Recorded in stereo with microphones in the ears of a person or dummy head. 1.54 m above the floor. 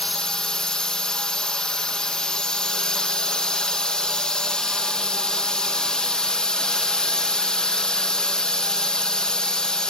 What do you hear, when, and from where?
0.0 s a drone: 5° left (ahead or behind)